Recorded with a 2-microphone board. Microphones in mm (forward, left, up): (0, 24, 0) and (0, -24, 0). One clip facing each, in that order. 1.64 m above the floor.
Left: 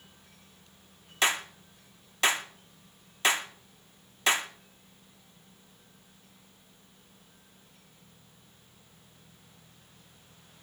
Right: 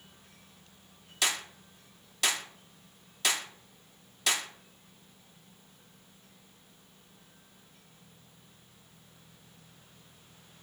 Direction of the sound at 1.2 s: 35° left (ahead or behind).